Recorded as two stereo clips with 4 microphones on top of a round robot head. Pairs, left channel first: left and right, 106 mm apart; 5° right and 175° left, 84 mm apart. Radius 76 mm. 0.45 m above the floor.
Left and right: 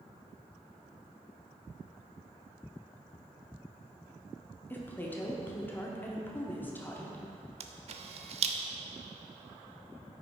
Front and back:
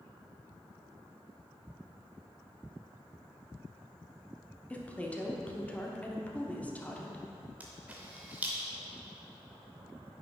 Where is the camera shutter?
110° right, 0.6 m.